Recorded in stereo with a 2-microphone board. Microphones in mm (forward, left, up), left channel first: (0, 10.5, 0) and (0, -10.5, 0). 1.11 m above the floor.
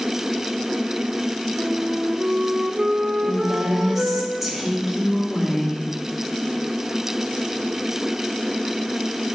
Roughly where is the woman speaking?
Centre.